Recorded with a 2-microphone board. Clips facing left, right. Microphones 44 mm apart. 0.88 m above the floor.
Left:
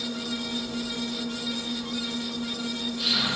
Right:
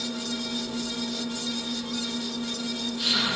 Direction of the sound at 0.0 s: 10° right (ahead or behind).